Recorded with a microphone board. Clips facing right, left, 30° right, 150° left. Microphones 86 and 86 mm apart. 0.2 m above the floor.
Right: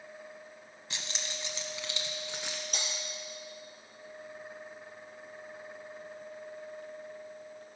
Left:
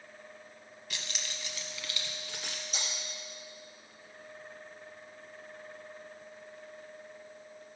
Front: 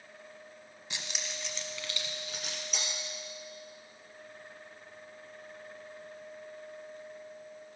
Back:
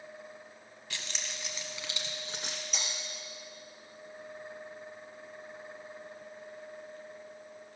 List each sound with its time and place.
0.9 s keys jangling: 70° right, 1.0 m; by 2.6 s 160° right, 1.9 m
2.7 s breaking glass: 120° right, 3 m